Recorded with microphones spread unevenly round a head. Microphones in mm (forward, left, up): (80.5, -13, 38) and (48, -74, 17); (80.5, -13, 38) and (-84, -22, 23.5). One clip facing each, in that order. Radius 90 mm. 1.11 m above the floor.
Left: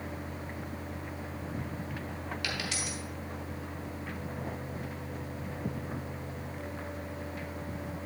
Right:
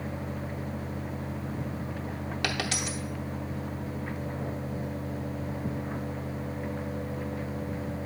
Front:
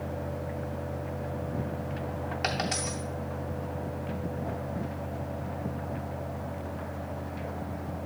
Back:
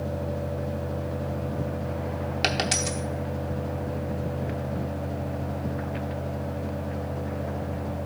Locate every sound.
2.4 s a dropped coin: 150° right, 0.8 m